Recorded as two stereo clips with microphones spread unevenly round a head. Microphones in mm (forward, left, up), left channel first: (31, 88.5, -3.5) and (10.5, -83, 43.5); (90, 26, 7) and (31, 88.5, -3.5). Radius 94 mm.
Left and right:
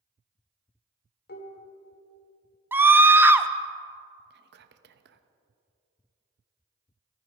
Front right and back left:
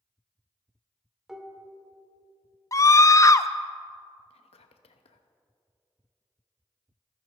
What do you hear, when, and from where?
1.3 s dishes clattering: 45° left, 2 m
2.7 s a scream: 5° right, 0.8 m
4.3 s whispering: 65° right, 0.9 m